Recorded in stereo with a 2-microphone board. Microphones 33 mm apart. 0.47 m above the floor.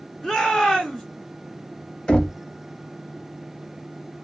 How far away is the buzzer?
No buzzer in this recording.